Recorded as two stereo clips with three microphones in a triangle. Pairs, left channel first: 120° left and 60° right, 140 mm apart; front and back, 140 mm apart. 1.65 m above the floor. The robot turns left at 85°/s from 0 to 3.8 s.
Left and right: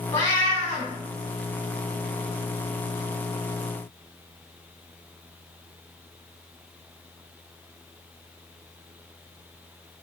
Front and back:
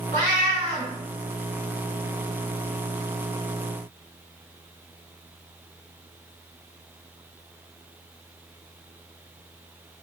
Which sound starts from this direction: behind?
A cat meowing, at 0.1 s.